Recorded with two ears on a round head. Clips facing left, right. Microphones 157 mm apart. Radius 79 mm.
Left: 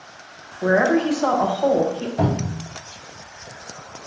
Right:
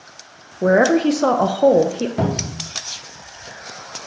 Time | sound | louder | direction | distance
0.6 | a woman speaking | right 4 dB | 45° right (ahead or behind) | 0.6 m
2.2 | a cupboard door | even | 65° right (ahead or behind) | 2 m